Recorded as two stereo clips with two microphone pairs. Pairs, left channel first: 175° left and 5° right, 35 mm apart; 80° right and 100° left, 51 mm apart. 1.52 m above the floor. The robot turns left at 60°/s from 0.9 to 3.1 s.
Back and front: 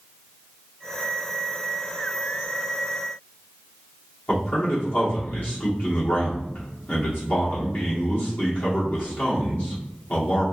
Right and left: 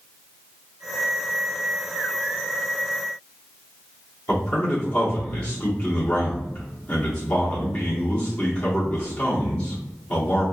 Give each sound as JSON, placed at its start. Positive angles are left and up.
{"t": 4.3, "sound": "a man speaking", "azimuth_deg": -150, "distance_m": 2.0}